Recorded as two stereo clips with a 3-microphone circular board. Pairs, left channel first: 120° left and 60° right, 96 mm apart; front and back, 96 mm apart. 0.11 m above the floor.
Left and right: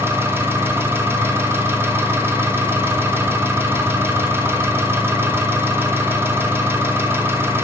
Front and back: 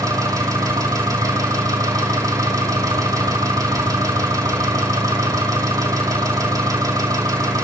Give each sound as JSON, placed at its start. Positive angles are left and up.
{"t": 0.0, "sound": "an engine running", "azimuth_deg": -125, "distance_m": 2.5}